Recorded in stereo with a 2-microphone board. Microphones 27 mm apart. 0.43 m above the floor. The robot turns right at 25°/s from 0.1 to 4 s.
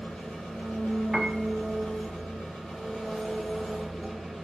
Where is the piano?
15° right (ahead or behind), 0.8 m; by 1.4 s 5° right (ahead or behind), 0.8 m.